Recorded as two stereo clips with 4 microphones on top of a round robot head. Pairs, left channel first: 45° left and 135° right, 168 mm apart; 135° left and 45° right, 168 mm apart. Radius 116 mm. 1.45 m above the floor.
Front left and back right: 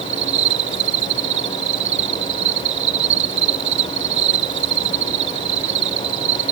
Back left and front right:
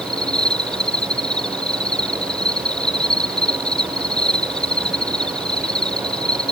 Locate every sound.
0.0 s an insect: 140° right